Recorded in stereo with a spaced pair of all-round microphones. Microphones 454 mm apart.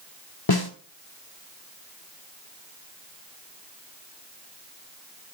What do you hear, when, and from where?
0.5 s a snare drum: 55° left (ahead or behind), 2.0 m